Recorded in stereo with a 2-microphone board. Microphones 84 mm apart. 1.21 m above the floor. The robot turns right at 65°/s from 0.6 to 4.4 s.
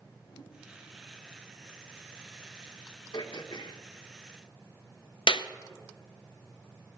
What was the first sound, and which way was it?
A whoosh, 65° left (ahead or behind).